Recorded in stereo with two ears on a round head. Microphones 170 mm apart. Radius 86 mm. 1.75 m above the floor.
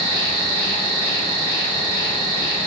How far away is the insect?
About 1.2 m.